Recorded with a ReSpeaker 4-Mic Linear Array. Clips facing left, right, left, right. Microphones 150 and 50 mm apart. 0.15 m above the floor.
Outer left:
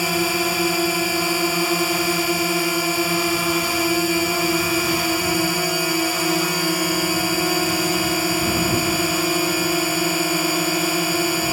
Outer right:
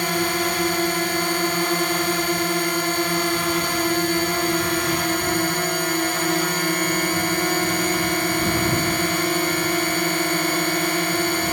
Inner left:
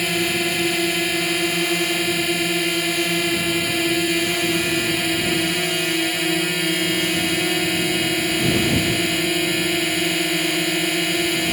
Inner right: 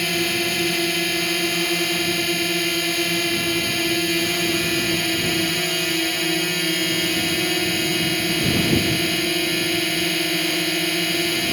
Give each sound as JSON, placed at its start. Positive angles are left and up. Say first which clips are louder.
{"t": 0.0, "sound": "a drone", "louder": "outer left 1 dB, inner left 1 dB", "side_deg": 5}